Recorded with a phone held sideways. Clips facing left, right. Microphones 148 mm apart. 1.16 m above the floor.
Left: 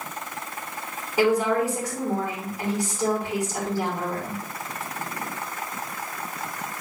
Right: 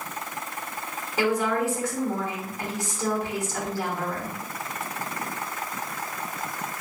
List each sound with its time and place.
1.2 s a woman speaking: 15° left (ahead or behind), 2.5 m